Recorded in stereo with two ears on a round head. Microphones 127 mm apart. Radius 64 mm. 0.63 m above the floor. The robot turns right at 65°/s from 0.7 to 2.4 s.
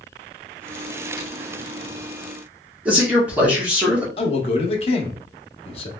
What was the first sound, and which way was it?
A man speaking, 10° right (ahead or behind).